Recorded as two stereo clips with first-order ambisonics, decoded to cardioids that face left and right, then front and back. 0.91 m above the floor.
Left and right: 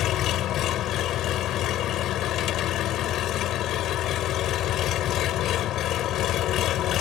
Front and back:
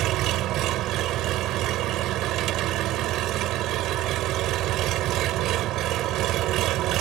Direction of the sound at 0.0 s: 140° left.